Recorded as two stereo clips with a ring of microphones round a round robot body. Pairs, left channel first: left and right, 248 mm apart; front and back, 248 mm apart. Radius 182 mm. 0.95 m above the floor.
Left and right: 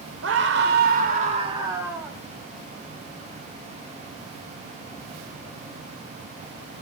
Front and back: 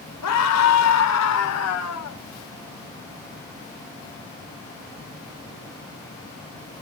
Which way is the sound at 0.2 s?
35° right.